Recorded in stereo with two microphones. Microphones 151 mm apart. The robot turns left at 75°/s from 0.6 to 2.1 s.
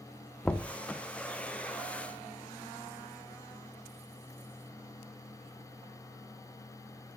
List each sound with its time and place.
0.5 s knocking: 5° left (ahead or behind), 0.6 m; by 0.7 s centre (ahead or behind), 0.6 m